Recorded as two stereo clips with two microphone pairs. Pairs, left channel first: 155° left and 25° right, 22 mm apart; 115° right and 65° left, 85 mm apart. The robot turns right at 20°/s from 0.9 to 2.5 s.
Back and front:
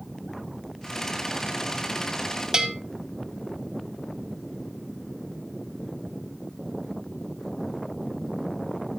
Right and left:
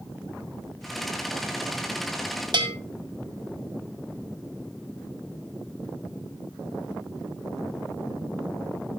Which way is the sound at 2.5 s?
40° left.